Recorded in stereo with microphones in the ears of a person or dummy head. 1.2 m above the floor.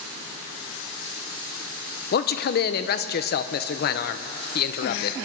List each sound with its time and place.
2.1 s a man speaking: 50° left (ahead or behind), 0.7 m